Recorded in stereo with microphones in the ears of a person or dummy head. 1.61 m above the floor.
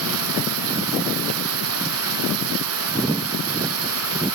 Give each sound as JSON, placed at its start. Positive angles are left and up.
{"t": 0.0, "sound": "running water", "side_deg": -70}